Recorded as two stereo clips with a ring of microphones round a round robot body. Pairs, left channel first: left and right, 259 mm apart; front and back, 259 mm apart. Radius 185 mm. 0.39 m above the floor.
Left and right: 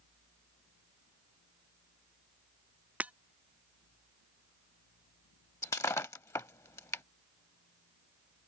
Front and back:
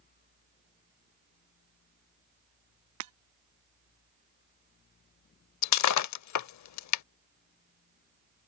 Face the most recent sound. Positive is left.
turn(degrees=10)